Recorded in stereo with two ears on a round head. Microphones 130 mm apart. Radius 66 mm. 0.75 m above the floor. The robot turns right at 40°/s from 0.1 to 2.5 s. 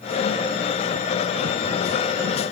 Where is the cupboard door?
I don't hear a cupboard door.